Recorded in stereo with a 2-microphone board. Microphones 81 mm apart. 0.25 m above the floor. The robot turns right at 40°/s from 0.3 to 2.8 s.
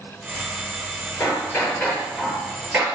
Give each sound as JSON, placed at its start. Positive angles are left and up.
{"t": 1.2, "sound": "hammering", "azimuth_deg": 135, "distance_m": 5.0}